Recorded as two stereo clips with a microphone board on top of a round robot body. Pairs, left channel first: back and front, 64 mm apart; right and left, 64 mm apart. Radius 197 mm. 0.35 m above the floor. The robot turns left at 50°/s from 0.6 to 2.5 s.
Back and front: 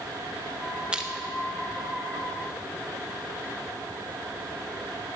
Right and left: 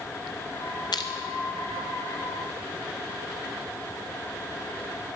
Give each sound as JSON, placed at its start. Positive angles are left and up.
{"t": 0.9, "sound": "crushing", "azimuth_deg": -75, "distance_m": 0.7}